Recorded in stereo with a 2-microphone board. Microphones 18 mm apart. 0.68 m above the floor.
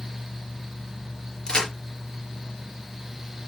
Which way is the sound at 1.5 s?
35° left (ahead or behind).